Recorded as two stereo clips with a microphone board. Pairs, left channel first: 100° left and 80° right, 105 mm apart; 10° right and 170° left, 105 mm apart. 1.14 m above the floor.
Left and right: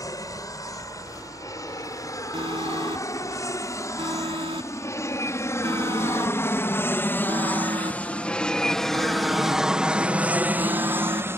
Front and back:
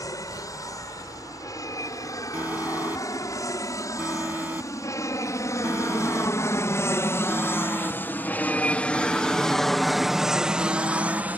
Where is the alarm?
115° right.